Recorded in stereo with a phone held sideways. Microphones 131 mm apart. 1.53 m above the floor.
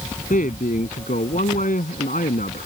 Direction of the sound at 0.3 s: 75° left (ahead or behind).